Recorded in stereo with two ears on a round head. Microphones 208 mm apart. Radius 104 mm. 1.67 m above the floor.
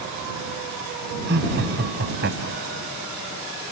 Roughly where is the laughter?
Right.